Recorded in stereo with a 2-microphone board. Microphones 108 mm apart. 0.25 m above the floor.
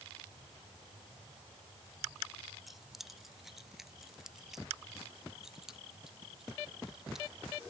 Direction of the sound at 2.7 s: Centre (ahead or behind).